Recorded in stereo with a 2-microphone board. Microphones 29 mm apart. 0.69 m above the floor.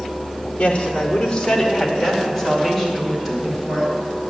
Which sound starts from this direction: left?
A woman speaking, at 0.6 s.